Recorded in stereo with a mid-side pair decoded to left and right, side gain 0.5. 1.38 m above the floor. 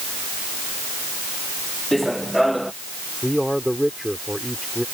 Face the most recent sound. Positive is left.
turn(degrees=0)